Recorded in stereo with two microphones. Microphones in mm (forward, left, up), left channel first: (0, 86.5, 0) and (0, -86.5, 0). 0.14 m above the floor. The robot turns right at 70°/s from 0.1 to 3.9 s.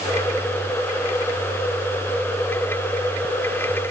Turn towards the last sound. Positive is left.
No sound to turn to.